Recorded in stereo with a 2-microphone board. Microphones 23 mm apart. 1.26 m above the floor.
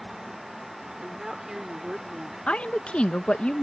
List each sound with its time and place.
1.0 s a woman speaking: 30° right (ahead or behind); by 2.4 s 10° right (ahead or behind)
2.5 s a woman speaking: 60° left (ahead or behind)